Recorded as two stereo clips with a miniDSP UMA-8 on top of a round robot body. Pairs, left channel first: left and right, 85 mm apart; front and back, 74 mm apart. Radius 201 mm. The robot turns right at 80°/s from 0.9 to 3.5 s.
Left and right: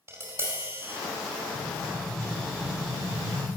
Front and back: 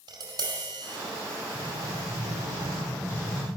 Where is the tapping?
150° right, 5 m; by 1.0 s 145° right, 5 m.